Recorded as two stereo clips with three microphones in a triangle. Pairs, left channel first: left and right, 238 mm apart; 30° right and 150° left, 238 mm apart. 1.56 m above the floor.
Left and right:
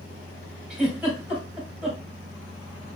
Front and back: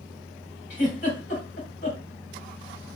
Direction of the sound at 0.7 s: Straight ahead.